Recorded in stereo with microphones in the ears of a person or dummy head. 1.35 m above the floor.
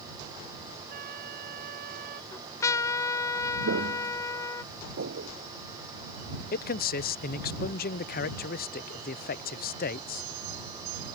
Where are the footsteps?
70° right (ahead or behind); by 5.3 s 65° right (ahead or behind).